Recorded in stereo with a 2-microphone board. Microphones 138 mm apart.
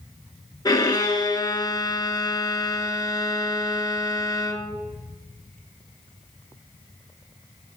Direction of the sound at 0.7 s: 30° left (ahead or behind).